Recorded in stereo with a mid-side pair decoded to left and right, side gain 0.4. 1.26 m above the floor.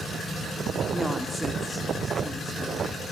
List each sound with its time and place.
0.9 s a woman speaking: 5° left, 3.5 m